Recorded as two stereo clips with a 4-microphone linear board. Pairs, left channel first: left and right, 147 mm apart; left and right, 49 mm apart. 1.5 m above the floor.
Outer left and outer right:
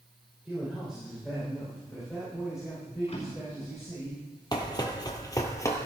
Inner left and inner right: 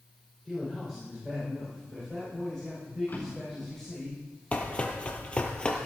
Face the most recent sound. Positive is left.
turn(degrees=20)  # may be behind; listen again after turning